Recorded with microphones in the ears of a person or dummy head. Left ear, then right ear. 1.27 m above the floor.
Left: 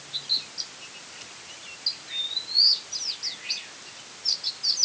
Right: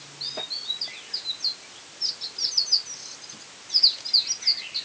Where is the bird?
I don't hear a bird.